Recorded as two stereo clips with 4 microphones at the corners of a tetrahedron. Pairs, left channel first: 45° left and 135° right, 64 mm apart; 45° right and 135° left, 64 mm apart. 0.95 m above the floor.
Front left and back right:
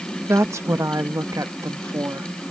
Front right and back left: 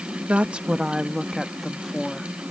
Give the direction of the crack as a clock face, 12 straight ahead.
No crack in this recording.